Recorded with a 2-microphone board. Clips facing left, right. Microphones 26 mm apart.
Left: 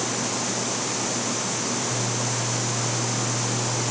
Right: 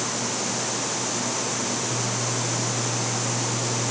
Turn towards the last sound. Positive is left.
No sound to turn to.